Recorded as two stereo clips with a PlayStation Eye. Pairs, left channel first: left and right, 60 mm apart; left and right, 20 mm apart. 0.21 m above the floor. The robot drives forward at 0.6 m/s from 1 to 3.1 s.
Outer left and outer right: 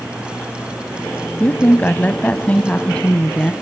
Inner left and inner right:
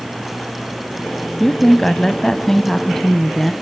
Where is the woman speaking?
25° left (ahead or behind), 1.1 m; by 3.5 s 20° left (ahead or behind), 1.4 m.